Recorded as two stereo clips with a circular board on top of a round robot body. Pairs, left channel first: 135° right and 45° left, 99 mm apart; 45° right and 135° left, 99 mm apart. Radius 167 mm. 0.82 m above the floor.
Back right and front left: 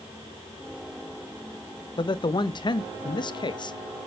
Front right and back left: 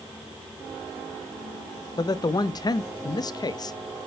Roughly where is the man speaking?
Right.